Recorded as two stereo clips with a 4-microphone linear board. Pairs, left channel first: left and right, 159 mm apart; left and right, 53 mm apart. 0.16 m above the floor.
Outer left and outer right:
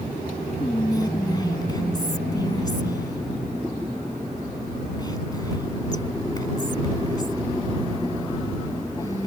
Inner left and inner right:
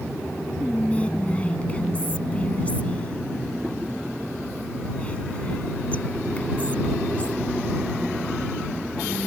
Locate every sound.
0.6 s whispering: 25° left (ahead or behind)